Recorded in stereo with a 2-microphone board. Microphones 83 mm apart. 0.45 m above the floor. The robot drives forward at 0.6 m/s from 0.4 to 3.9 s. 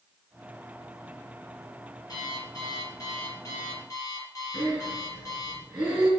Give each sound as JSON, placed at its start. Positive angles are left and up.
{"t": 2.1, "sound": "an alarm clock", "side_deg": 45, "distance_m": 4.0}
{"t": 4.5, "sound": "breathing", "side_deg": -5, "distance_m": 3.0}